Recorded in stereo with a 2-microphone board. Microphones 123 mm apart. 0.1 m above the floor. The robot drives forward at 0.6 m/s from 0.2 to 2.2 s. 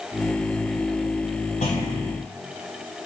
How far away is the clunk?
About 4.5 m.